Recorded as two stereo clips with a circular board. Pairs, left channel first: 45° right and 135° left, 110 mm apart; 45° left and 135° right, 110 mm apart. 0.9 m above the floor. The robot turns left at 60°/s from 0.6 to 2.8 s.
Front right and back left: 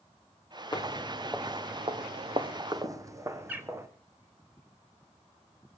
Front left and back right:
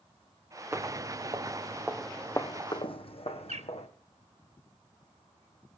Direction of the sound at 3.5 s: 150° right.